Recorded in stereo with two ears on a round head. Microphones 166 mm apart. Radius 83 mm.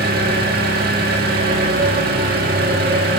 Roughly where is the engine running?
Right.